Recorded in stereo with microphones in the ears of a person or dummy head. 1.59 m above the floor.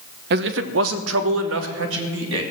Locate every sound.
0.3 s a man speaking: 60° right (ahead or behind), 1.0 m; by 2.4 s 70° right (ahead or behind), 2.5 m